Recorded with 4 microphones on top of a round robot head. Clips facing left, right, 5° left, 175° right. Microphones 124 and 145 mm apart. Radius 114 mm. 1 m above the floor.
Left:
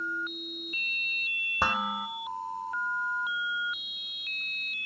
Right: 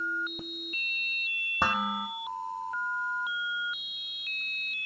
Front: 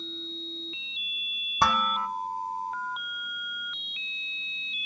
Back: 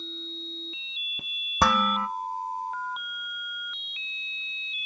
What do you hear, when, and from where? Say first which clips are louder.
1.6 s dishes clattering: right 1 dB, back 2 dB; straight behind, 0.6 m